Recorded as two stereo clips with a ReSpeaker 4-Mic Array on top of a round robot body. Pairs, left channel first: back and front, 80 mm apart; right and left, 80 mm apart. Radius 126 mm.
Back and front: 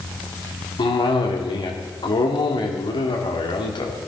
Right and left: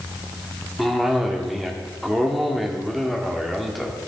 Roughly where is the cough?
Behind.